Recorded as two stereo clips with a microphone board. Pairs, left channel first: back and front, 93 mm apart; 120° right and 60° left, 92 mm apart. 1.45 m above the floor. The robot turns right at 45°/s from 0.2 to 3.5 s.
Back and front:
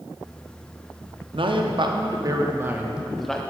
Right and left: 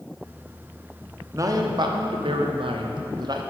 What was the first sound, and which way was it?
A man speaking, 5° left.